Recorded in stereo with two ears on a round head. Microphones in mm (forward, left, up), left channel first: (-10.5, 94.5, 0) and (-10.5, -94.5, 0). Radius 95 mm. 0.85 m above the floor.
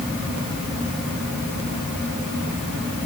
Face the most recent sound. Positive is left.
No sound to turn to.